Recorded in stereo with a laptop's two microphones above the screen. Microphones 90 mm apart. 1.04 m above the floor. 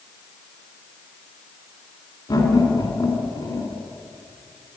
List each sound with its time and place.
2.3 s laughter: 55° left (ahead or behind), 2.5 m